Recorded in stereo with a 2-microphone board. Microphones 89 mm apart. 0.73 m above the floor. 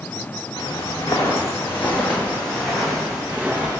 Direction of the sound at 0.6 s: 45° left (ahead or behind).